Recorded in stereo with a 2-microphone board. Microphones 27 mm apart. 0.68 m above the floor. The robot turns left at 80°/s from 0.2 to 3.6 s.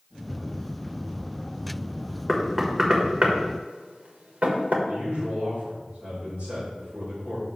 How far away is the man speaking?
About 2.5 m.